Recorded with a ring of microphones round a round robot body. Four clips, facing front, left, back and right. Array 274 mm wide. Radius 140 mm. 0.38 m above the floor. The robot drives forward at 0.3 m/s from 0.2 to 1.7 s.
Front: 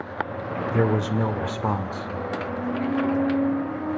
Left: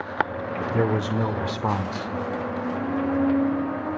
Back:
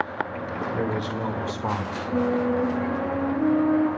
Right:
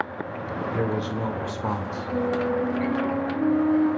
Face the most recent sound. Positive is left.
turn(degrees=-160)